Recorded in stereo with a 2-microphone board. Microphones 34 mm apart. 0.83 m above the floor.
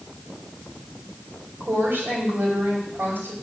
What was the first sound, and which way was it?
A woman speaking, 80° right.